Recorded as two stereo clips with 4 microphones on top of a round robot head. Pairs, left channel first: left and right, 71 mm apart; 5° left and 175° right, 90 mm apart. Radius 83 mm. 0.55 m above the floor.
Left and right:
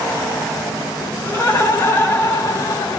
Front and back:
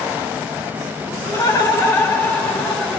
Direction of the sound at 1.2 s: 30° left.